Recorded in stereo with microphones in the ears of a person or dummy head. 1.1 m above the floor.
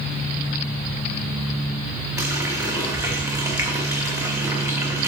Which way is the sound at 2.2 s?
15° right (ahead or behind).